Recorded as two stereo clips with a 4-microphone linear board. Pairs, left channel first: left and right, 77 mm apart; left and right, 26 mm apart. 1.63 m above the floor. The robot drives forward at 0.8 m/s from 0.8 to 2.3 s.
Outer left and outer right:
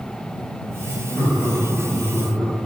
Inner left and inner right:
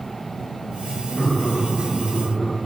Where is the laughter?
5° right (ahead or behind), 3 m.